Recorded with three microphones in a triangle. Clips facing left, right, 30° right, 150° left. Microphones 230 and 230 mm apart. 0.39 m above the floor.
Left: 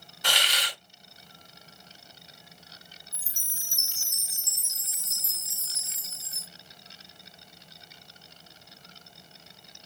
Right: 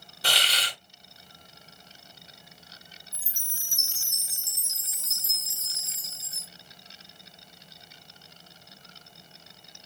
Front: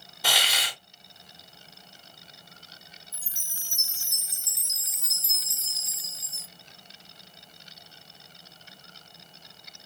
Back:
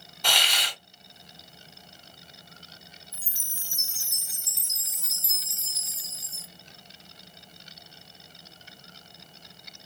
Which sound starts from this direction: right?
A hiss, at 0.2 s.